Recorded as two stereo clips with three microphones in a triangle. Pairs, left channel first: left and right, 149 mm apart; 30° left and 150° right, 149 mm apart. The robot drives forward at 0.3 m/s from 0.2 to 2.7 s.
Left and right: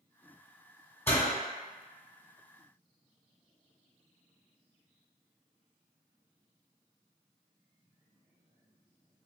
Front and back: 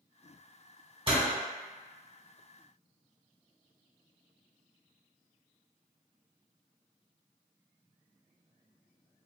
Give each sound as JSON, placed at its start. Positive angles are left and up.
{"t": 1.1, "sound": "a door slam", "azimuth_deg": 165, "distance_m": 1.4}